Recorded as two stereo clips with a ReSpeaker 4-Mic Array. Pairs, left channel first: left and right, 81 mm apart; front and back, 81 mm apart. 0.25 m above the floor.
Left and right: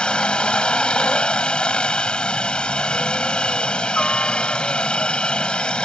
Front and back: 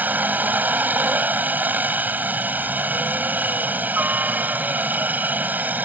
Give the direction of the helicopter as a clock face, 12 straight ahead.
7 o'clock.